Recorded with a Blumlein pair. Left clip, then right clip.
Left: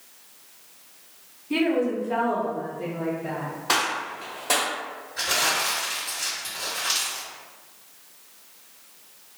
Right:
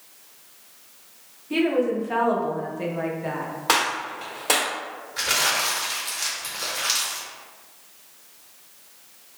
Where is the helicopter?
I don't hear a helicopter.